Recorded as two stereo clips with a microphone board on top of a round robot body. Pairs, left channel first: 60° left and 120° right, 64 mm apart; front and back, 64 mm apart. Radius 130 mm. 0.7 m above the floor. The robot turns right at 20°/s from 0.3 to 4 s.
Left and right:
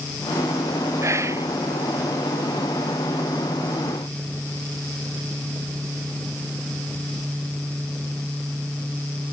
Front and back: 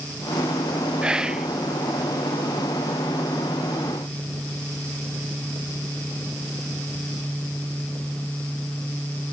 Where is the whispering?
110° right, 0.5 m; by 1.5 s 100° right, 0.5 m.